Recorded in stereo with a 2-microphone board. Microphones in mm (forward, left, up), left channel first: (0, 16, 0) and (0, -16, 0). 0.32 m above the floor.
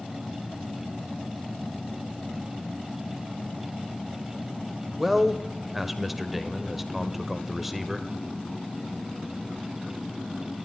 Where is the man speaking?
5° right (ahead or behind), 0.8 m.